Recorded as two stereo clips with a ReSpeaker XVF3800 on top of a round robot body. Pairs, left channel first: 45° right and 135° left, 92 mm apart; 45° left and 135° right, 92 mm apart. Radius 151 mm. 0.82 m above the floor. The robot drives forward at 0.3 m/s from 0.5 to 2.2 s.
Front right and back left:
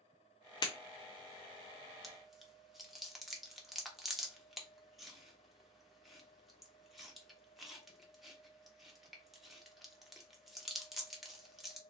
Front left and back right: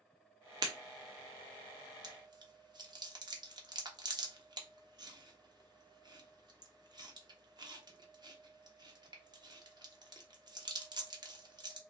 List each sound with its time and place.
0.6 s breaking glass: 90° right, 0.5 m
2.0 s chewing: 135° right, 1.0 m